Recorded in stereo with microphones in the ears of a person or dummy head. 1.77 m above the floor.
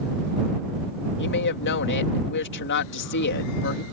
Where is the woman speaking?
60° left (ahead or behind).